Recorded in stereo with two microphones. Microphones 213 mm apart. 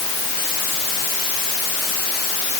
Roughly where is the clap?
I don't hear a clap.